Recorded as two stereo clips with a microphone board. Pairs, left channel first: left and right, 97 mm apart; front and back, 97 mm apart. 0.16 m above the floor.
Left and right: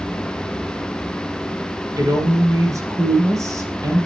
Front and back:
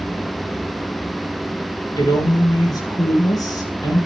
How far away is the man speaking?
About 2.5 m.